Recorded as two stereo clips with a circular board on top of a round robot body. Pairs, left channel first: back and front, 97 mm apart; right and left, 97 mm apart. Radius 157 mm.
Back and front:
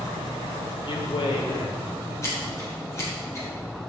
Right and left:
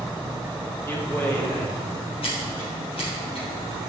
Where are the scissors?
120° right, 4.5 m.